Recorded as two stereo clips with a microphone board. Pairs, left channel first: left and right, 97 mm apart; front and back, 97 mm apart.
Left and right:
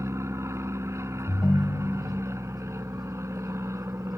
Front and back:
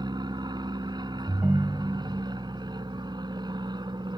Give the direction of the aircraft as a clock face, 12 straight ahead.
5 o'clock.